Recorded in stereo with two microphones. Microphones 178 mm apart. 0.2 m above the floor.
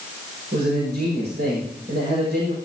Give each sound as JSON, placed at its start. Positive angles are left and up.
{"t": 0.5, "sound": "a man speaking", "side_deg": -70, "distance_m": 7.0}